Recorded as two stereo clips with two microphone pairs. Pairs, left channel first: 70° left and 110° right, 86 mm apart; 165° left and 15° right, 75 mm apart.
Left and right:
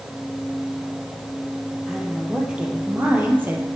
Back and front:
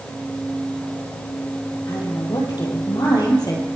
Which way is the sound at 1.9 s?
165° left.